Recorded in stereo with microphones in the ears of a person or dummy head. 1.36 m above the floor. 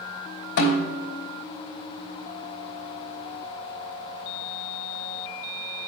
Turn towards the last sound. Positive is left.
turn(degrees=75)  # may be behind; listen again after turning